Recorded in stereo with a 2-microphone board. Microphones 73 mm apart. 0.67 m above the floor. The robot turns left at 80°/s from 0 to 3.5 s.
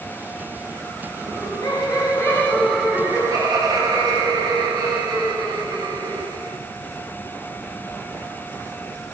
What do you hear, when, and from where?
1.2 s laughter: 115° left, 4 m; by 6.5 s 65° right, 4 m